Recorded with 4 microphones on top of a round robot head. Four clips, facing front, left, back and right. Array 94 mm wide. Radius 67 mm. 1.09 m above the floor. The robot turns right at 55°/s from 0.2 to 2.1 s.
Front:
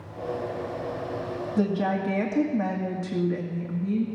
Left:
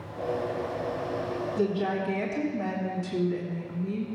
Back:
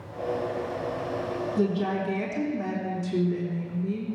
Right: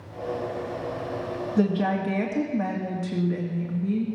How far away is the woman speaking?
About 2 m.